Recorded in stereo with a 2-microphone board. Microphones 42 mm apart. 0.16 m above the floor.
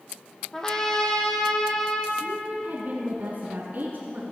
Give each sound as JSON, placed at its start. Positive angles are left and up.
{"t": 0.5, "sound": "a trumpet", "side_deg": 15, "distance_m": 1.8}
{"t": 2.2, "sound": "a woman speaking", "side_deg": -45, "distance_m": 2.0}